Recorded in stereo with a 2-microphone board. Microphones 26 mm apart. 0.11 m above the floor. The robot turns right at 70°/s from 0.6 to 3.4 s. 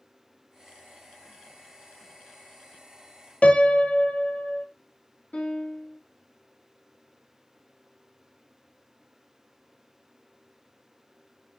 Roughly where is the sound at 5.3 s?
Left.